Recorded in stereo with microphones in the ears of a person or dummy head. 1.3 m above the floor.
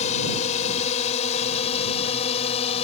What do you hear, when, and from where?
0.0 s a drone: 35° left (ahead or behind); by 2.9 s 30° left (ahead or behind)